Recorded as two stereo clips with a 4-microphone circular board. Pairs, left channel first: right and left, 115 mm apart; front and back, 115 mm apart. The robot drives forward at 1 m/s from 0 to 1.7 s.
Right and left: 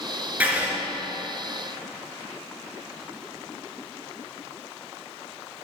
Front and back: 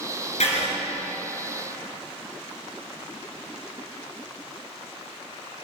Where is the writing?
15° left, 2.5 m.